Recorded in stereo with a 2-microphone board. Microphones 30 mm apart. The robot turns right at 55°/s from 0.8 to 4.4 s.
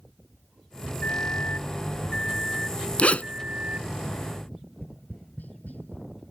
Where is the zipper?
45° left (ahead or behind); by 3.2 s 55° left (ahead or behind).